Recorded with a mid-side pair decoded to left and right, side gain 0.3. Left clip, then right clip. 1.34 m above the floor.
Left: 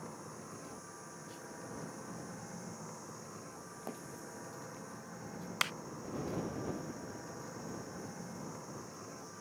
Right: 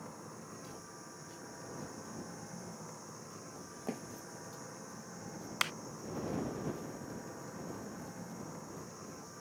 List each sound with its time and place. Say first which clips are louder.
0.0 s a machine running: left 1 dB; 20° left
3.9 s a thud: right 7 dB; 65° right
5.6 s a clap: even; 10° left